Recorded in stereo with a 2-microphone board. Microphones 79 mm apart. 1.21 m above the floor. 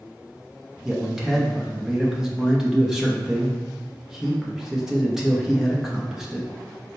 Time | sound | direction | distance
0.8 | a man speaking | 5° right (ahead or behind) | 0.7 m